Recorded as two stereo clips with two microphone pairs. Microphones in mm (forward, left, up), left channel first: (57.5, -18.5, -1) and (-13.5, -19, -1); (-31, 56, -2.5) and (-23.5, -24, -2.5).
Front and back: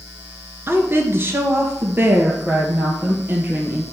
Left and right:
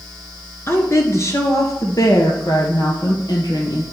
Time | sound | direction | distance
0.7 | a woman speaking | 140° left | 1.5 m